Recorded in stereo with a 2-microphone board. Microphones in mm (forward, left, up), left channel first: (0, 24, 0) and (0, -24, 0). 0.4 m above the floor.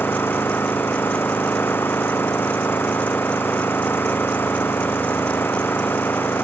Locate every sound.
0.0 s an engine running: 50° left (ahead or behind)